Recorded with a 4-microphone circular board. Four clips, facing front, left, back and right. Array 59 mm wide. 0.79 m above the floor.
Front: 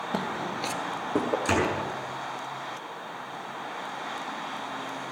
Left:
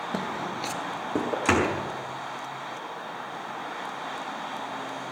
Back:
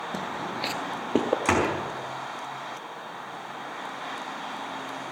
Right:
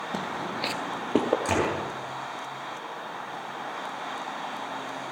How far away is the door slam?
About 5 m.